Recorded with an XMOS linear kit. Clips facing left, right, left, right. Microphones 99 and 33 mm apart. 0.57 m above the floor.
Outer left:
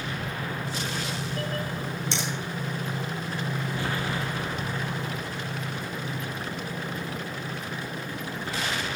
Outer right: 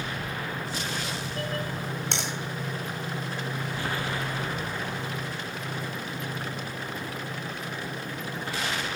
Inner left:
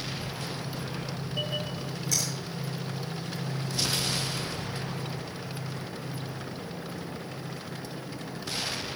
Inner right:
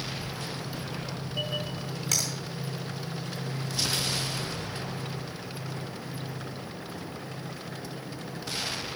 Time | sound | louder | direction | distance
2.1 | a finger snap | outer left 1 dB, inner right 1 dB | 60° right (ahead or behind) | 3.5 m